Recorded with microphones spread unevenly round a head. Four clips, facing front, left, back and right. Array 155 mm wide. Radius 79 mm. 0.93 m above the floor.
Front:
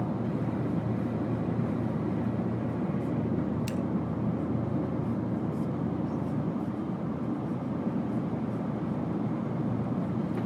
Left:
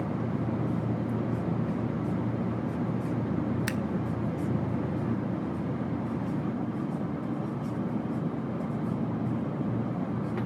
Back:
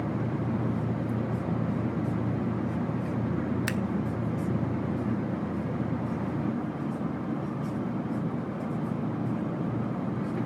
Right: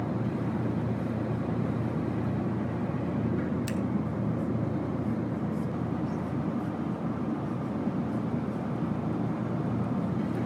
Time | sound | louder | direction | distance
3.7 | scissors | even, back 2 dB | 160° left | 0.7 m